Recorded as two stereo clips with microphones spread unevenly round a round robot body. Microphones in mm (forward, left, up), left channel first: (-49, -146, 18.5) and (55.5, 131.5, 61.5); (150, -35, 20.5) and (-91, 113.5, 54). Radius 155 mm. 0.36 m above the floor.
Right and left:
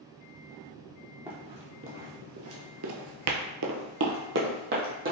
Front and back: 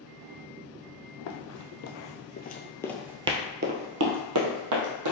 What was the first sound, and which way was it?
Running footsteps, straight ahead.